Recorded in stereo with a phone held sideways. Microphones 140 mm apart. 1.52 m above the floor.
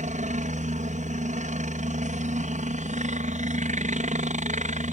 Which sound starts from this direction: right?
A helicopter, at 0.0 s.